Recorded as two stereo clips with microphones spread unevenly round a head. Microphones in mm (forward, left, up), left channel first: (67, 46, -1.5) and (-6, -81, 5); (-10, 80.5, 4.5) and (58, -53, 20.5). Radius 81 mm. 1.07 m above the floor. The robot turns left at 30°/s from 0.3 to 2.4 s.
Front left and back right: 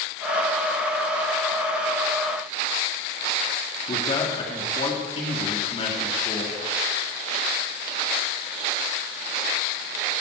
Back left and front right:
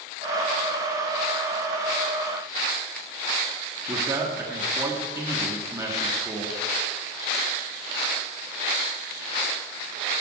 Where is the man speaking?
10° left, 2 m.